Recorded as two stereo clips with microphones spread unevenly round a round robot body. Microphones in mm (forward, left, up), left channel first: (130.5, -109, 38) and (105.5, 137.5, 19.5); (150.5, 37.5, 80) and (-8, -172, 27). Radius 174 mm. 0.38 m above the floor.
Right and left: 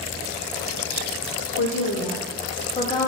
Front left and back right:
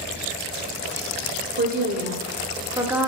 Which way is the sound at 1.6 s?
100° right.